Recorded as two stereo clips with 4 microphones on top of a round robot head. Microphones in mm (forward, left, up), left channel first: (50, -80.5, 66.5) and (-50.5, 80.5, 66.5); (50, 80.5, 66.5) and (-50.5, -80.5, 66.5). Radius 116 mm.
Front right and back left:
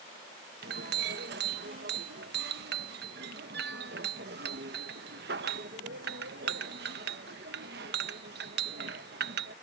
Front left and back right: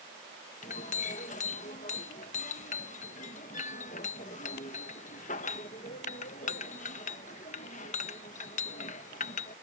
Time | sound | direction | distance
0.6 | a clink | 100° left | ?